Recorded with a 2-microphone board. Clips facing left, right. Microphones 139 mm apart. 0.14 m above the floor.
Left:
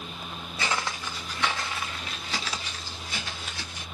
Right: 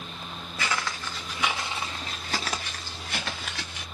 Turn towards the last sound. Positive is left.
turn(degrees=-75)  # may be behind; listen again after turning